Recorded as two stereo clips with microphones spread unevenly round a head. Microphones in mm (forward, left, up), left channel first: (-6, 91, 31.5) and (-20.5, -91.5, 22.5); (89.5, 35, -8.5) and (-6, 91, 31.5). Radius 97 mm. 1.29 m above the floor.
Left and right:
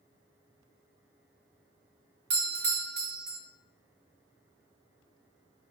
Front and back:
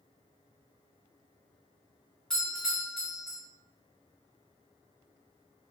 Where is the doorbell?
100° right, 0.5 m.